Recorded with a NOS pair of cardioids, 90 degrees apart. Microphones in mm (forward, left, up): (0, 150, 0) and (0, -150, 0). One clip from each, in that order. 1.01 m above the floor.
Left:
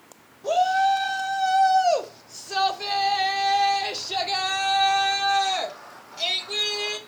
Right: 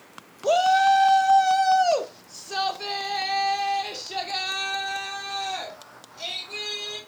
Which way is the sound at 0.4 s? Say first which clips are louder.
Right 2 dB; 35° right.